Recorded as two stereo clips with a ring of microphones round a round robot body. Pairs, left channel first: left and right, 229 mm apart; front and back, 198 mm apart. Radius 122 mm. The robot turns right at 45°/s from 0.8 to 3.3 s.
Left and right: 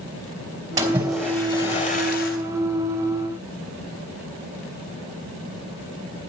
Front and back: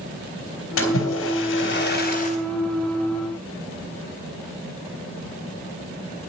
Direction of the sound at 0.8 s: 15° right.